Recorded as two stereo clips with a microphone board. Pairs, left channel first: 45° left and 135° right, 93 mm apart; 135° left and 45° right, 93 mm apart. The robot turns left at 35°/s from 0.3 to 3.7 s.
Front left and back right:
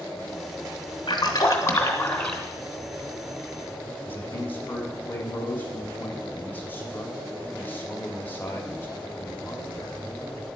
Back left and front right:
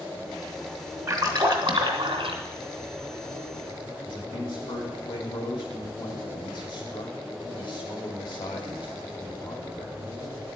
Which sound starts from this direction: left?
A man speaking, at 4.0 s.